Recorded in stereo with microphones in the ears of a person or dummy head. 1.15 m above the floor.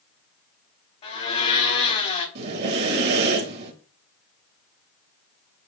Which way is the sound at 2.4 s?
55° right (ahead or behind).